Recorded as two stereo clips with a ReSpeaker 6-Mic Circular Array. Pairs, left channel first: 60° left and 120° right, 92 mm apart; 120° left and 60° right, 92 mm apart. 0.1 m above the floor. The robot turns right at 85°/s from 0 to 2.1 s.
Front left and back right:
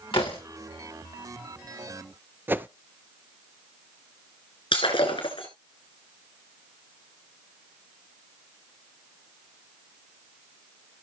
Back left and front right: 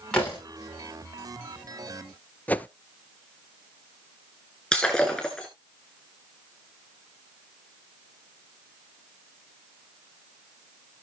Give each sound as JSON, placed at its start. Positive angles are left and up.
{"t": 0.1, "sound": "a door slam", "azimuth_deg": 40, "distance_m": 8.5}
{"t": 2.5, "sound": "a whoosh", "azimuth_deg": -175, "distance_m": 0.6}
{"t": 4.7, "sound": "breaking glass", "azimuth_deg": 40, "distance_m": 3.5}